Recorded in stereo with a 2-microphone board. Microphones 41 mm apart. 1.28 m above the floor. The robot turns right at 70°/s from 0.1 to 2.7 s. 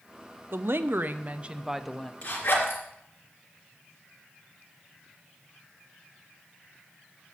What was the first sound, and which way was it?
A woman speaking, 100° right.